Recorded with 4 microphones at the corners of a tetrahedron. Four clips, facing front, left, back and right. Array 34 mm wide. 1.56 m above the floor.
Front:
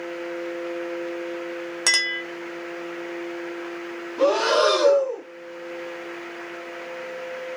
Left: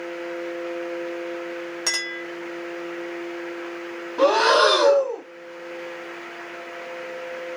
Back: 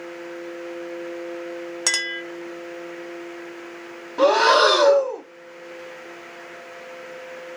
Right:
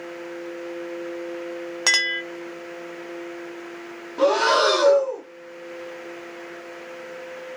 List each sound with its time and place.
1.9 s a clink: 80° right, 0.8 m
4.2 s breathing: 160° left, 1.7 m